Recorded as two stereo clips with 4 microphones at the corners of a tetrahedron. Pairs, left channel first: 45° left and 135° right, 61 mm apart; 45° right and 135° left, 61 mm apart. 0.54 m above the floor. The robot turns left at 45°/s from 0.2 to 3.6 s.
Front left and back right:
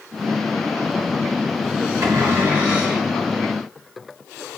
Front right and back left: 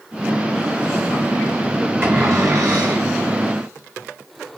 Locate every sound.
2.0 s a cupboard door: 175° right, 1.2 m; by 3.1 s 135° left, 1.2 m